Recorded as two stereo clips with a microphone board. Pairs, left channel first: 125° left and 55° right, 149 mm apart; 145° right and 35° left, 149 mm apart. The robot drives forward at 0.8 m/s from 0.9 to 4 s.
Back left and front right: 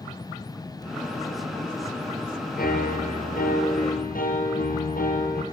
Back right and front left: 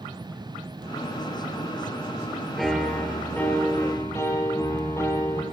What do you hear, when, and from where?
2.6 s a piano: 125° left, 2.5 m; by 5.4 s 140° left, 3 m